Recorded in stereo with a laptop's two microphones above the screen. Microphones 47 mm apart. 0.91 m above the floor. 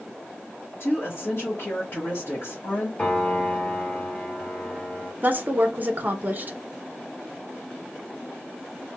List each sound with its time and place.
0.8 s a woman speaking: 50° left (ahead or behind), 1.2 m
3.0 s a piano: 30° left (ahead or behind), 1.4 m
5.2 s a woman speaking: 40° right (ahead or behind), 0.6 m